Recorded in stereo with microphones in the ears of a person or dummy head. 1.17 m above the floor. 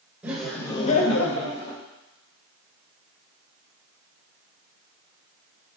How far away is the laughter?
About 1.2 m.